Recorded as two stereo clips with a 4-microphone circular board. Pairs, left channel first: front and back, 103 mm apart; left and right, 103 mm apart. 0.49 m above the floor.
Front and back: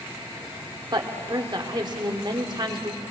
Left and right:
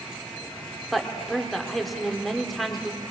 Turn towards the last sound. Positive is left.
turn(degrees=180)